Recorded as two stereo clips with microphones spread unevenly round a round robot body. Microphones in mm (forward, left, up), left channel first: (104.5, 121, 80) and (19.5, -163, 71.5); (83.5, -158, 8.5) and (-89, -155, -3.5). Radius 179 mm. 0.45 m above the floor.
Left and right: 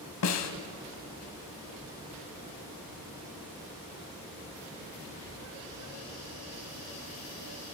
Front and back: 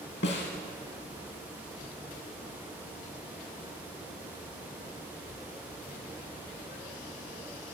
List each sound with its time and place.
0.2 s a snare drum: 40° left, 1.1 m